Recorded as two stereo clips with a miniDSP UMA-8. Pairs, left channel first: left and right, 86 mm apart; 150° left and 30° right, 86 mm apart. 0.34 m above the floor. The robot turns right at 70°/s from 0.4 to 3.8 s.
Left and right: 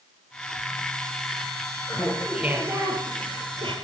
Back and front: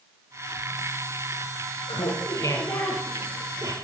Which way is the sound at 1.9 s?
145° left.